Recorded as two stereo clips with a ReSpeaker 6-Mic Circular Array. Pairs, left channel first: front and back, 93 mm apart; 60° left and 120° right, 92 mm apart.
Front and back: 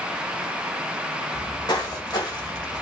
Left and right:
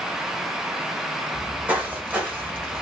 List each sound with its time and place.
1.3 s footsteps: 45° right, 1.5 m